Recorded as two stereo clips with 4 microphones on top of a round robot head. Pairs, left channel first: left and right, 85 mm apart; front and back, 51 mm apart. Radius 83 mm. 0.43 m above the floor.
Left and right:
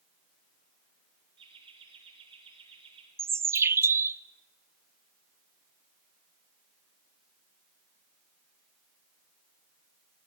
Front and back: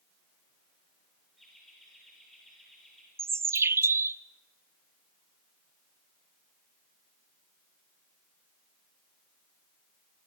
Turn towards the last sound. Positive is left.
turn(degrees=-150)